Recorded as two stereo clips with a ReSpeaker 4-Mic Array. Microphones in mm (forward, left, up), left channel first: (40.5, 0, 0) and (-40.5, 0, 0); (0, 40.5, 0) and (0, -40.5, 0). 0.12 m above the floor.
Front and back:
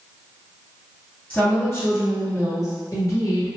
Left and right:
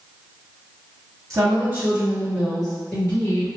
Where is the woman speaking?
60° right, 1.8 m; by 3.5 s 30° left, 2.5 m.